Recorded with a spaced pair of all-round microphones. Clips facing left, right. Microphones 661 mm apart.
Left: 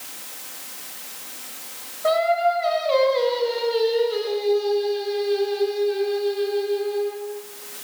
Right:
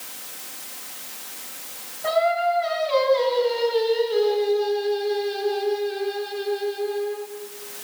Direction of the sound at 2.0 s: 70° right (ahead or behind).